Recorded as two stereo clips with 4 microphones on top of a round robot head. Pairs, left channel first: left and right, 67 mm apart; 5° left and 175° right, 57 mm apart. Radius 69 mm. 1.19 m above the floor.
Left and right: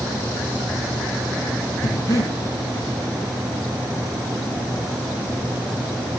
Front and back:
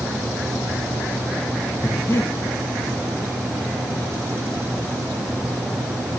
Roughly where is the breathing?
Ahead left.